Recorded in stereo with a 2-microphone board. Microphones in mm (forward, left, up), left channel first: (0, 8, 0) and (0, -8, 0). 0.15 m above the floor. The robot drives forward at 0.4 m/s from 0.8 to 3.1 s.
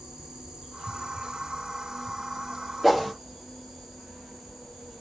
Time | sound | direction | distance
0.0 | an insect | 50° right (ahead or behind) | 1.2 m
2.8 | a whoosh | 5° right (ahead or behind) | 1.5 m